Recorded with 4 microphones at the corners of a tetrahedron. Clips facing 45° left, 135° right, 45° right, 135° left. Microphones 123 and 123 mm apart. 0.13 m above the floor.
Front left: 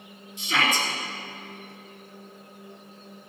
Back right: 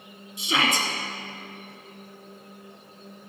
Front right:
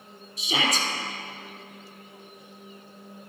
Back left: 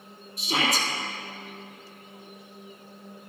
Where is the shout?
150° left, 2.5 m.